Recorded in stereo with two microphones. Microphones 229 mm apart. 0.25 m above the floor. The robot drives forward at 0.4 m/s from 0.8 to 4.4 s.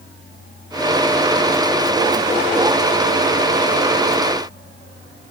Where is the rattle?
No rattle in this recording.